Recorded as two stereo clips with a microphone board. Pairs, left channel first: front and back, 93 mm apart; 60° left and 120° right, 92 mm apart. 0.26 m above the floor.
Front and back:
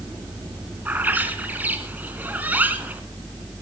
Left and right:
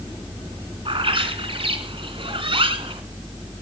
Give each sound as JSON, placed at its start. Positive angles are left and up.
{"t": 0.8, "sound": "a bird", "azimuth_deg": -110, "distance_m": 3.0}